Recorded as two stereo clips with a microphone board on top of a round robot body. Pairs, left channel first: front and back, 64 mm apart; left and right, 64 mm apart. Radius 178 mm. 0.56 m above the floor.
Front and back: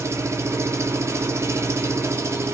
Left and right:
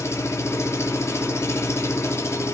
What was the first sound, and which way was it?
An engine running, 135° left.